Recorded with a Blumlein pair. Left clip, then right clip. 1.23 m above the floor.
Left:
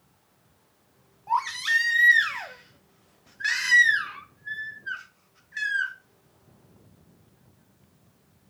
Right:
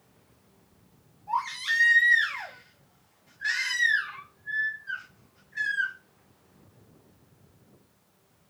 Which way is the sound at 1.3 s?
35° left.